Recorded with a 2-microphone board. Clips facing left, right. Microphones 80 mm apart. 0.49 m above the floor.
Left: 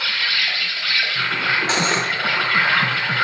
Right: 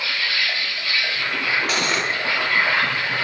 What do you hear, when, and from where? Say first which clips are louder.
0.0 s an insect: left 1 dB; 85° left, 2.5 m
1.7 s cutlery clinking: left 2 dB; 25° left (ahead or behind), 0.6 m